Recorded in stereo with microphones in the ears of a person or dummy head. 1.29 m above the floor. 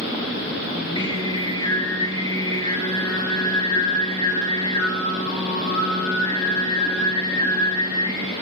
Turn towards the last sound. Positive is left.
turn(degrees=30)  # may be behind; listen again after turning